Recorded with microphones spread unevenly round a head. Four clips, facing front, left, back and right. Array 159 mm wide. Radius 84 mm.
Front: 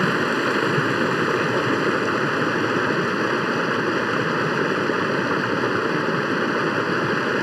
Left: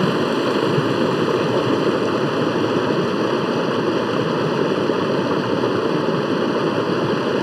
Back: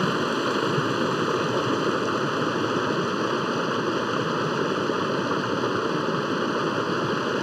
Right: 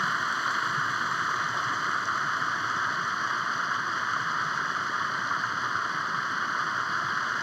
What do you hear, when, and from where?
0.0 s running water: 80° left